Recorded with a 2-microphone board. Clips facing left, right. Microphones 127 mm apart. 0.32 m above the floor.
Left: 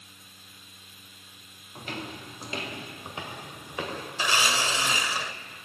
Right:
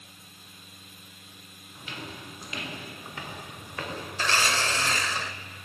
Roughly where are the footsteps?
Left.